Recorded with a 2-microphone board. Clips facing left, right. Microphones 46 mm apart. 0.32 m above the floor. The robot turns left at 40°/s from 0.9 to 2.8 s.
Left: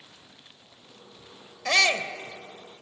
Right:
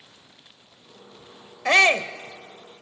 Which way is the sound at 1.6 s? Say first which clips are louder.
Right 5 dB; 25° right (ahead or behind).